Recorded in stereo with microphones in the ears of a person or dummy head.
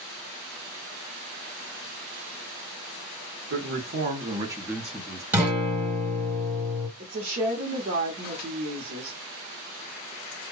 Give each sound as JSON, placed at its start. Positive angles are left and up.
{"t": 3.5, "sound": "a man speaking", "side_deg": -60, "distance_m": 0.9}
{"t": 5.3, "sound": "a guitar", "side_deg": -10, "distance_m": 0.6}
{"t": 7.0, "sound": "a woman speaking", "side_deg": -45, "distance_m": 0.7}